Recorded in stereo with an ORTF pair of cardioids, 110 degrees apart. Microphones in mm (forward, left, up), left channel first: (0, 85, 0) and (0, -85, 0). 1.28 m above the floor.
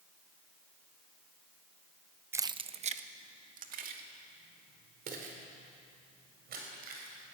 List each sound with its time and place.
2.3 s keys jangling: 15° right, 0.6 m; by 7.3 s 65° right, 6.5 m